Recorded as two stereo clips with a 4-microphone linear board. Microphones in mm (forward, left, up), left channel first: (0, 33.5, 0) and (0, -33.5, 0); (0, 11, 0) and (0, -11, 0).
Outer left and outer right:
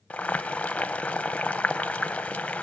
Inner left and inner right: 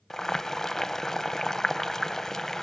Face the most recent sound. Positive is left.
turn(degrees=20)  # may be behind; listen again after turning